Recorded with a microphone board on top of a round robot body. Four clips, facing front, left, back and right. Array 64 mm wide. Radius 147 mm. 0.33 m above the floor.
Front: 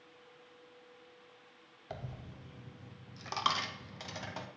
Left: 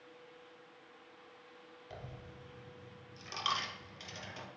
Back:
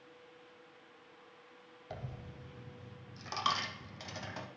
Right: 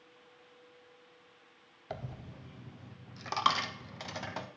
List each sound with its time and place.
1.9 s a dropped coin: 85° right, 0.6 m